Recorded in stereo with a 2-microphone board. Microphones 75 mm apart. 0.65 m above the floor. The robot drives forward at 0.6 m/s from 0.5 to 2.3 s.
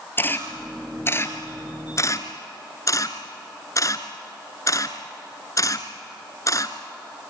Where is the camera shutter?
30° left (ahead or behind), 2.5 m; by 6.8 s 45° left (ahead or behind), 1.5 m.